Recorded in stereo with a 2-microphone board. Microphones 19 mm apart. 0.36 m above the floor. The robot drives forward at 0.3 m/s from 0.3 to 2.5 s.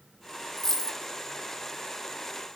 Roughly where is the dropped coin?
Centre.